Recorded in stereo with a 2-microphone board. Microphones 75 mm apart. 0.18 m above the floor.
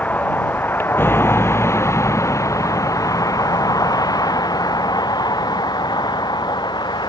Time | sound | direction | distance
0.0 | a vehicle | 20° left (ahead or behind) | ?